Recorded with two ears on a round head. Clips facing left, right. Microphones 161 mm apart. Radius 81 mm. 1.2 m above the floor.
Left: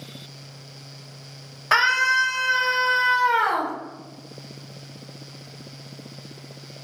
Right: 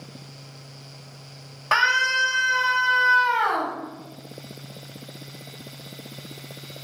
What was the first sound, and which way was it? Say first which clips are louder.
A scream: left 1 dB; 5° left (ahead or behind).